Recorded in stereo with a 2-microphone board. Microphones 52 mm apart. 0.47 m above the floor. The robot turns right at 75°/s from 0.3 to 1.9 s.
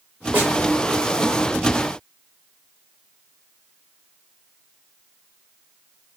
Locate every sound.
0.3 s a snare drum: 30° right (ahead or behind), 1.5 m; by 0.5 s 20° right (ahead or behind), 1.5 m